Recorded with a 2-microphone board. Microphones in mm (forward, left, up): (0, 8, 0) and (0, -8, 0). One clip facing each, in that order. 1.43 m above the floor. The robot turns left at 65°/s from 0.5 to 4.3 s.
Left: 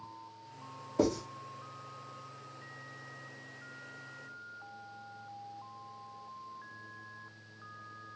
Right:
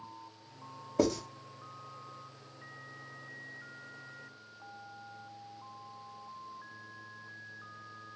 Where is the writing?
40° right (ahead or behind), 0.6 m; by 1.2 s 55° right (ahead or behind), 0.6 m.